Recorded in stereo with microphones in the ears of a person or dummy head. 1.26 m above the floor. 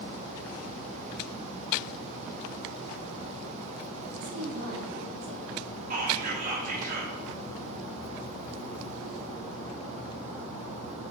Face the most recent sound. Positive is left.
turn(degrees=-55)  # may be behind; listen again after turning